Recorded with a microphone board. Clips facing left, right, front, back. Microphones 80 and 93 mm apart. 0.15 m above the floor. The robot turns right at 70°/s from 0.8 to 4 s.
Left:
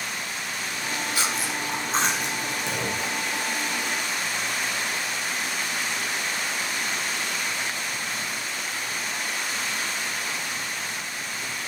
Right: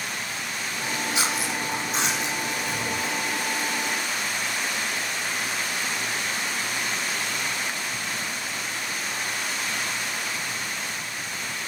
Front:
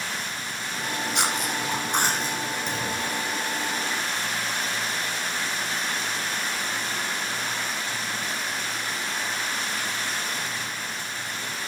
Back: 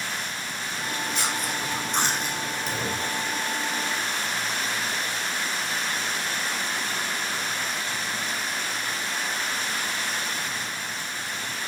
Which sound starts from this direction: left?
A clunk, at 2.7 s.